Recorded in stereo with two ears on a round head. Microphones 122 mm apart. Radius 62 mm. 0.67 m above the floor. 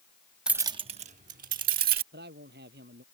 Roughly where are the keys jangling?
Centre.